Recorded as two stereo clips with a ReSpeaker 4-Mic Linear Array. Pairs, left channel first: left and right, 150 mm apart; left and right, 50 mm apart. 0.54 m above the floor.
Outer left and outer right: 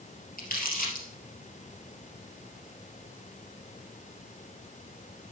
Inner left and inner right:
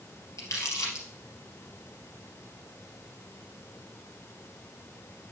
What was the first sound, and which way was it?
Crumpling, 80° left.